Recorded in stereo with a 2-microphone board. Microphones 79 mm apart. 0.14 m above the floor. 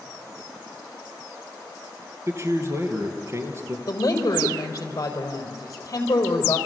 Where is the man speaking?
35° right (ahead or behind), 3 m.